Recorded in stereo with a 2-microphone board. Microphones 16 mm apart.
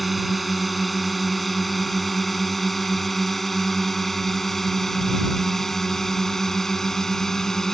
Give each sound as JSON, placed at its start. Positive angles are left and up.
{"t": 0.0, "sound": "a drone", "side_deg": 0}